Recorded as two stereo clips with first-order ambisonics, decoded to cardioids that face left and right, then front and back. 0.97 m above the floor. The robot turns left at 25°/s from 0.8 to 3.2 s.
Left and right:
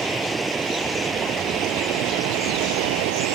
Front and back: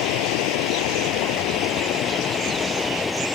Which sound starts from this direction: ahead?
Running water, at 0.0 s.